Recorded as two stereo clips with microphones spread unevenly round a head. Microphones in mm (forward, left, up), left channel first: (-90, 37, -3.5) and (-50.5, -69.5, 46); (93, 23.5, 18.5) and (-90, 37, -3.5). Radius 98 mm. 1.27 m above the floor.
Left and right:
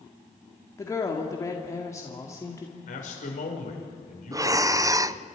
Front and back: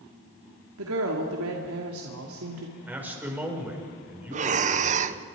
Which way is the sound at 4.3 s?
145° right.